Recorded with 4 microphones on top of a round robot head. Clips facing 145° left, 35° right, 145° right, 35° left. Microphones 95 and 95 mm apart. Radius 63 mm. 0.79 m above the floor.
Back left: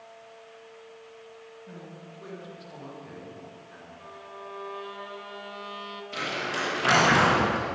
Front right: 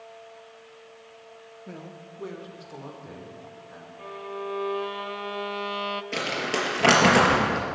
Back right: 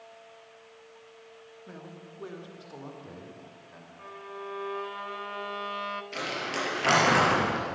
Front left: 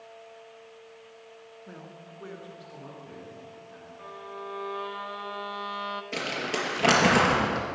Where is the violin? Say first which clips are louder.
Front right 10 dB, front left 1 dB; 45° right, 0.8 m.